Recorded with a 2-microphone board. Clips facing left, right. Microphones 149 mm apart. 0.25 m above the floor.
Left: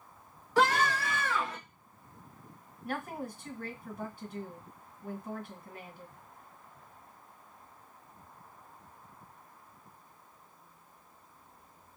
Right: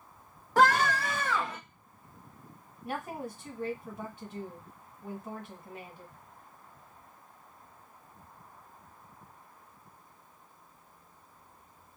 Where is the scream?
50° right (ahead or behind), 1.8 m; by 1.6 s 30° right (ahead or behind), 1.3 m.